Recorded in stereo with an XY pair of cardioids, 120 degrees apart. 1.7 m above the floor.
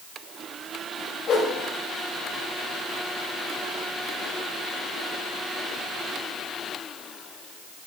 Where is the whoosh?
55° left, 2.5 m.